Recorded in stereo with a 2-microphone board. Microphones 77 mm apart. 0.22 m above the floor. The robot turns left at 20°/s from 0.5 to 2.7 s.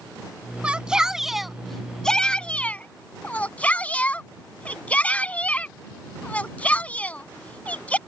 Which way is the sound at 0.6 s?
15° right (ahead or behind).